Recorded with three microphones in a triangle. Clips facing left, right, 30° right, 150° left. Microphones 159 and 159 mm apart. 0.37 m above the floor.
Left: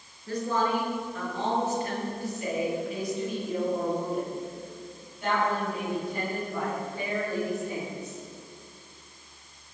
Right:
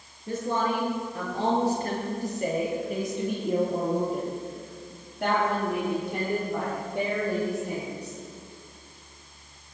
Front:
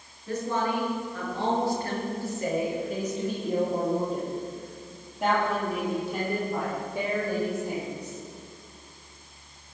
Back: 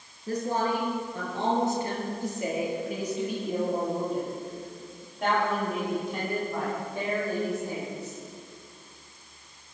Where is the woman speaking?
160° right, 5.5 m; by 8.2 s 110° right, 12 m.